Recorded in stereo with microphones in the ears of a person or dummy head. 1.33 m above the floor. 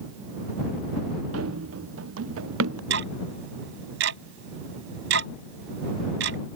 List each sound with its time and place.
1.3 s running footsteps: 85° right; by 2.8 s 80° right
2.9 s ticking: 70° right (ahead or behind)